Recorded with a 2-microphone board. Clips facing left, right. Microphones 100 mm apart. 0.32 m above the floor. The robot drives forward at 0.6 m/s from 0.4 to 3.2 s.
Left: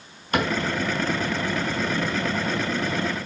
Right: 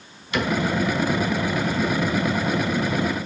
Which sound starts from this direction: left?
A cupboard door, at 0.3 s.